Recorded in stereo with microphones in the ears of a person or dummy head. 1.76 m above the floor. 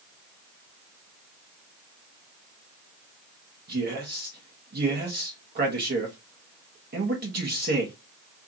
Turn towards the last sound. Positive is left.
turn(degrees=-50)  # may be behind; listen again after turning